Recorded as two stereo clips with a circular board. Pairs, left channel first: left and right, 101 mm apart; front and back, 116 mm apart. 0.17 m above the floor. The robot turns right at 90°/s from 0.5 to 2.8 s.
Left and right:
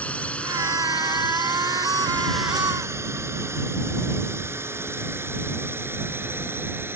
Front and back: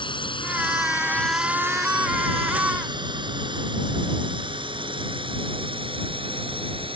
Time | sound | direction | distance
0.0 | a drone | 20° left | ?